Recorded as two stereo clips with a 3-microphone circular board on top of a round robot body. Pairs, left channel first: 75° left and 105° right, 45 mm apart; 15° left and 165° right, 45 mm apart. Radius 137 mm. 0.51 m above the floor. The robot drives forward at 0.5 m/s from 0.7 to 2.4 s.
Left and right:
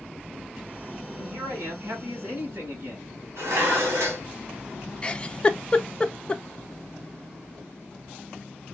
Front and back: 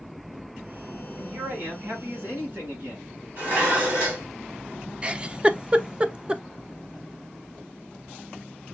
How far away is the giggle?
About 0.6 m.